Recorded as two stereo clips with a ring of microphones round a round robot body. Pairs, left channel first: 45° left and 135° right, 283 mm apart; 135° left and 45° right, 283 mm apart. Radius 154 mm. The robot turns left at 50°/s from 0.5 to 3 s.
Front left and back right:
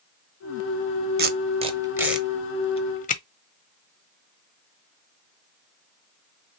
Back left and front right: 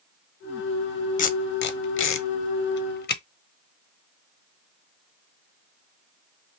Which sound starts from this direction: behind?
Tape being pulled, at 1.2 s.